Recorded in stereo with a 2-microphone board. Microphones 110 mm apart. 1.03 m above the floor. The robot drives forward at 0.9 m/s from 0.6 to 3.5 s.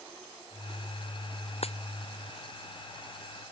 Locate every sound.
1.6 s a dropped coin: 65° left (ahead or behind)